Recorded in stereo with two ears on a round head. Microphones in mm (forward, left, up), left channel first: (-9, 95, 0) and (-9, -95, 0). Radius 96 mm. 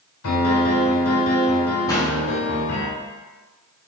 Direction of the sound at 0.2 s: 80° left.